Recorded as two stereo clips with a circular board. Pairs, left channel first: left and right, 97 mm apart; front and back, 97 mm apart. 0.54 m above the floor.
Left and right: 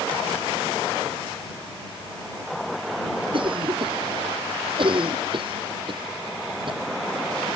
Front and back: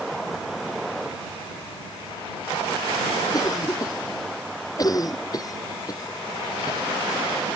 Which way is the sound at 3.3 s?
55° right.